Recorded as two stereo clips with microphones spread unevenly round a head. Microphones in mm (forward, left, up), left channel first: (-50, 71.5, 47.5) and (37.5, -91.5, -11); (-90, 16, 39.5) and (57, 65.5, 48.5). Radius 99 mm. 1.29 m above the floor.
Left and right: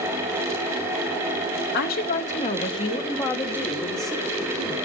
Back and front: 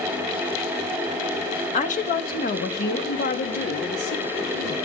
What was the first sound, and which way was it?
A woman speaking, 155° left.